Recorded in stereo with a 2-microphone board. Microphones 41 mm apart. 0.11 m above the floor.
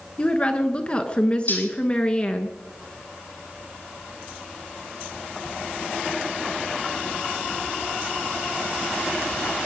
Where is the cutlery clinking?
50° left (ahead or behind), 2.5 m.